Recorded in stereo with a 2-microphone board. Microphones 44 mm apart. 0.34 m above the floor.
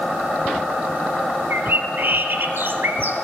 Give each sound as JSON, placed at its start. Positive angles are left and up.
{"t": 1.5, "sound": "a bird", "side_deg": -60, "distance_m": 1.0}